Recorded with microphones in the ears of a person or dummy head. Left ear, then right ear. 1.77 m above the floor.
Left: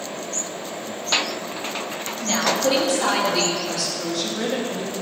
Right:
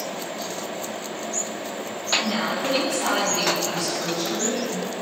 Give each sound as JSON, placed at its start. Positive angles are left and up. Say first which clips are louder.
{"t": 2.2, "sound": "a woman speaking", "louder": "left 4 dB", "side_deg": 70, "distance_m": 2.5}
{"t": 3.7, "sound": "a woman speaking", "louder": "even", "side_deg": 65, "distance_m": 2.5}